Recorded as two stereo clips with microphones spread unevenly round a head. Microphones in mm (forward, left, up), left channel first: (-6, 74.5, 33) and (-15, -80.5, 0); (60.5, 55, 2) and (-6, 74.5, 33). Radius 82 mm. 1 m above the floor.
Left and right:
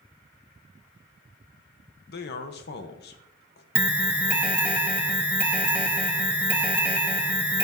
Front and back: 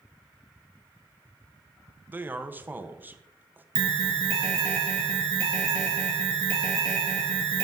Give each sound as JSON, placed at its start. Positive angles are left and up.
{"t": 2.1, "sound": "a man speaking", "azimuth_deg": 85, "distance_m": 1.3}
{"t": 3.8, "sound": "an alarm", "azimuth_deg": -170, "distance_m": 1.4}